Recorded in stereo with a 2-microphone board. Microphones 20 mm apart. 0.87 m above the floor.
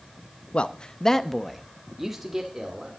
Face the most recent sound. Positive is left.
turn(degrees=-25)  # may be behind; listen again after turning